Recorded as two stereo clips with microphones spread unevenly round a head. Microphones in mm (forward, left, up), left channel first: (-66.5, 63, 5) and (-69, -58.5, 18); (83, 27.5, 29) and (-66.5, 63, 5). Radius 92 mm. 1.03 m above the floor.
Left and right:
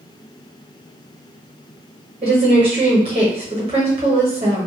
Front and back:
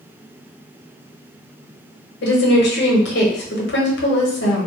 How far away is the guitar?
I don't hear a guitar.